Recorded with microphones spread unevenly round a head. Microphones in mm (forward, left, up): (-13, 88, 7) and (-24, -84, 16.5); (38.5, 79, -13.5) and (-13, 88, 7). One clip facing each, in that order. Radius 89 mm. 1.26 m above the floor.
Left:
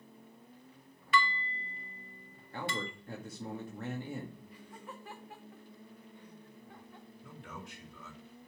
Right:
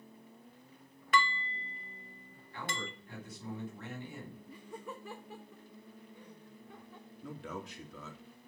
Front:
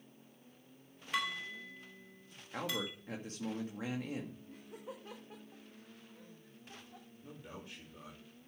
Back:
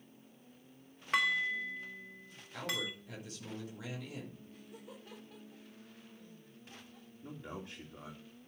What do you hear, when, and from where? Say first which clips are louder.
1.1 s dishes clattering: even, back 7 dB; 135° right, 1.3 m
2.5 s a man speaking: left 4 dB, even; 35° left, 2 m
4.5 s laughter: right 4 dB, front 3 dB; 85° right, 1.3 m
7.2 s a man speaking: right 6 dB, back 5 dB; 110° right, 2.5 m